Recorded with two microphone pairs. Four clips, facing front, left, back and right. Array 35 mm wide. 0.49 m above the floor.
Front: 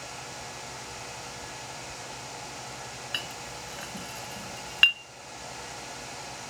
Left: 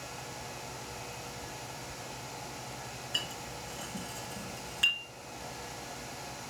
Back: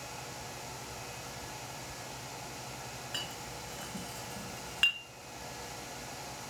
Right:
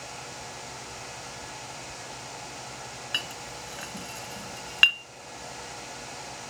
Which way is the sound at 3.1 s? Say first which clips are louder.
Right 4 dB, front 5 dB; 65° right.